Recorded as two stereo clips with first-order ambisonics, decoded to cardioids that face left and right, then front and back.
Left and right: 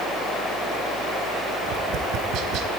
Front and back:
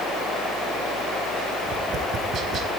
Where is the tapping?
125° right, 0.6 m.